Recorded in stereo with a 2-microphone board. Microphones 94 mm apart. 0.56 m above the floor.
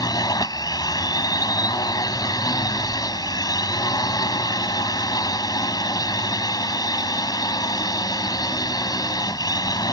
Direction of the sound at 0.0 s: 45° left (ahead or behind).